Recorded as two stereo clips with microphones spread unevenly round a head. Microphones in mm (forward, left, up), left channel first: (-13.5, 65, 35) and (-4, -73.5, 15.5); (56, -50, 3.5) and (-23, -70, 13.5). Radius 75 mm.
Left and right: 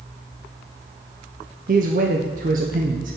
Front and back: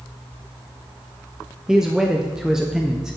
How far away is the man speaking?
About 0.5 m.